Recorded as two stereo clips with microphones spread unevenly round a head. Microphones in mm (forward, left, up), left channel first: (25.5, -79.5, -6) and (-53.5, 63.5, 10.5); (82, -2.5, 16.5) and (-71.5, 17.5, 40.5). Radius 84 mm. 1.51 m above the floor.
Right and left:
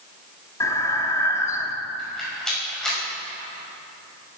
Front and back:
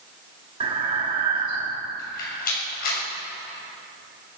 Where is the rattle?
25° left, 6 m.